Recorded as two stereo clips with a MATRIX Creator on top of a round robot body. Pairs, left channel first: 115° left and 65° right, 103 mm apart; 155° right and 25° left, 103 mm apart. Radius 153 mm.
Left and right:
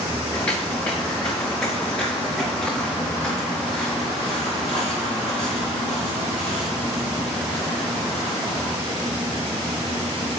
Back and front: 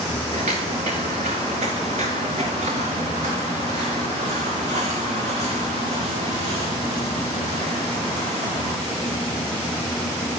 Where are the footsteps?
35° left, 2.5 m; by 8.8 s 30° left, 7 m.